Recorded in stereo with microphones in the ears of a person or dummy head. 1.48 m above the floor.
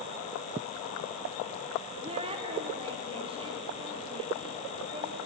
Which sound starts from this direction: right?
A woman speaking, at 2.0 s.